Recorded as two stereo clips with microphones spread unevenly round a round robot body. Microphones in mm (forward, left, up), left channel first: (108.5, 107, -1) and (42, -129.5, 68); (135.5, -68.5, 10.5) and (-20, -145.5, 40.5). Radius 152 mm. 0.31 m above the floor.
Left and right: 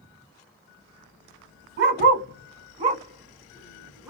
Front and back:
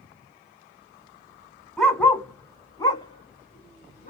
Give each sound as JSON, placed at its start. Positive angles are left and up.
{"t": 1.8, "sound": "a dog barking", "azimuth_deg": -60, "distance_m": 1.6}